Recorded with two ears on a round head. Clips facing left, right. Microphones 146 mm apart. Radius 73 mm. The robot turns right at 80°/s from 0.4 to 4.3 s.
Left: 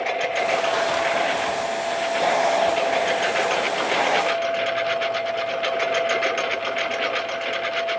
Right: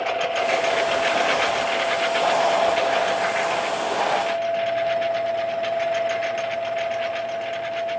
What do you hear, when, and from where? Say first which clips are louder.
0.0 s a lawn mower: right 1 dB; 10° left (ahead or behind); by 8.0 s 70° left (ahead or behind)